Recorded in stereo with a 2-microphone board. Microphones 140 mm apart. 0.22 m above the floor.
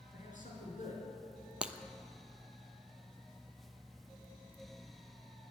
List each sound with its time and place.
0.1 s a man speaking: 65° left (ahead or behind), 3 m
1.6 s breaking glass: 10° right (ahead or behind), 0.6 m